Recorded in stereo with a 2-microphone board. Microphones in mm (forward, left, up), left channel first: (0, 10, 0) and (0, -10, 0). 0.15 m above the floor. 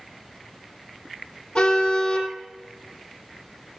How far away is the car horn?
About 3 m.